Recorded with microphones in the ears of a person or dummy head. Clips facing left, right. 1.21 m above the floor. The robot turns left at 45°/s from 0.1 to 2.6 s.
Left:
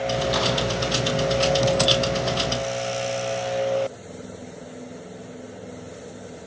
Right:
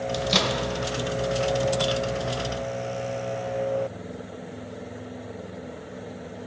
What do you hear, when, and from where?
0.1 s a microwave: 30° right (ahead or behind), 1.0 m; by 0.6 s 45° right (ahead or behind), 1.0 m